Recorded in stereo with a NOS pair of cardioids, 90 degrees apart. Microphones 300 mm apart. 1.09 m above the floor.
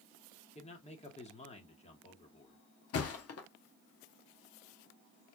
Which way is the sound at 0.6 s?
20° left.